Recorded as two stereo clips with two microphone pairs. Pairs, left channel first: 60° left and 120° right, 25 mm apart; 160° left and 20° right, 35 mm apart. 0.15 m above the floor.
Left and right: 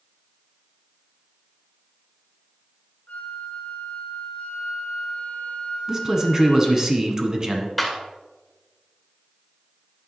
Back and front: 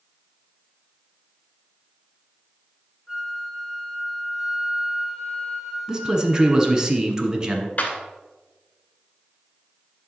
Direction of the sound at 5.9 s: 75° right.